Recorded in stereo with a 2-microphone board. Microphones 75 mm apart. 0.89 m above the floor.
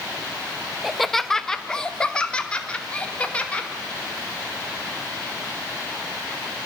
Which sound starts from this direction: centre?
Laughter, at 0.8 s.